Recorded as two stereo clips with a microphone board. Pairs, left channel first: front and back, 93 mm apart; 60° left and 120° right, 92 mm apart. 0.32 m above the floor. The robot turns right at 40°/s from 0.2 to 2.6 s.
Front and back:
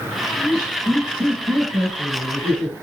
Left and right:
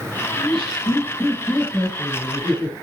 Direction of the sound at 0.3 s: 85° left.